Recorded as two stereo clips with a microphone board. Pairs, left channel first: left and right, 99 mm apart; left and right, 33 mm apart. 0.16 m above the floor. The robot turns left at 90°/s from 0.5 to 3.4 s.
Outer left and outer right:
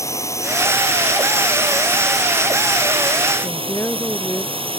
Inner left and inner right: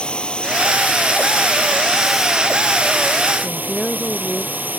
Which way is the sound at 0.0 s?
150° left.